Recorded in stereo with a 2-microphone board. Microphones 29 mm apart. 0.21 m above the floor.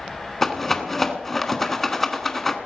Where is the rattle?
10° left (ahead or behind), 1.2 m.